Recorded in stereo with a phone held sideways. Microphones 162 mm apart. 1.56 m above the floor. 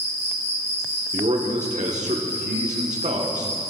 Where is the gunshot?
I don't hear a gunshot.